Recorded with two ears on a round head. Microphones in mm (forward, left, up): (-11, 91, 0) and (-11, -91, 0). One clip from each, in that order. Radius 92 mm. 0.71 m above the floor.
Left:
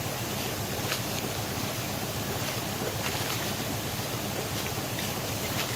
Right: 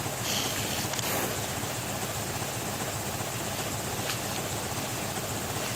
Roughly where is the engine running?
Right.